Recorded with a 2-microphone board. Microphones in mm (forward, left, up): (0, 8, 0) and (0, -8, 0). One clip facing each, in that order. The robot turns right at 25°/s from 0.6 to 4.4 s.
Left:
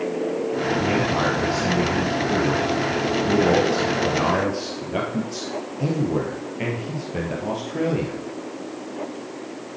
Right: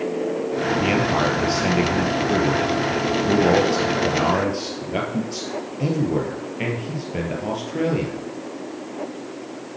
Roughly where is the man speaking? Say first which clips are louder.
Right 2 dB; right.